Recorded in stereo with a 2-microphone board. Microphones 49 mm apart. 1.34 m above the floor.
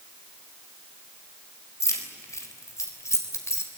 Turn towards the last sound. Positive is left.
turn(degrees=75)  # may be behind; listen again after turning